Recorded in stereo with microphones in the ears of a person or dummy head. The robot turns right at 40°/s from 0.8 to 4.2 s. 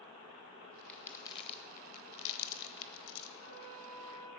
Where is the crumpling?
15° left (ahead or behind), 1.0 m; by 3.3 s 70° left (ahead or behind), 1.0 m.